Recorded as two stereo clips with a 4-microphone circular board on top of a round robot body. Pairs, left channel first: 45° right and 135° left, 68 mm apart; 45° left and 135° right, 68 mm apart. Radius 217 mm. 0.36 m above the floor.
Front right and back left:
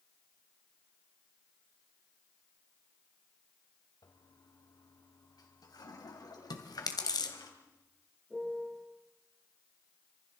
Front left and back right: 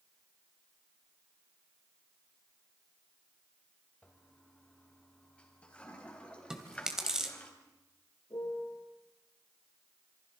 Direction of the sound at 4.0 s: 30° right.